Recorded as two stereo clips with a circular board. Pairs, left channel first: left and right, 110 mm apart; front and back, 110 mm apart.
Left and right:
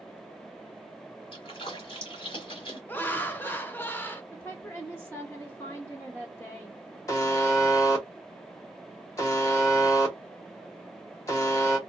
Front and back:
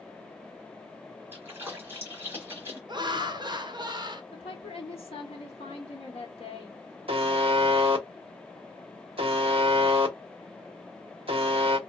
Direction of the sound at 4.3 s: 20° left.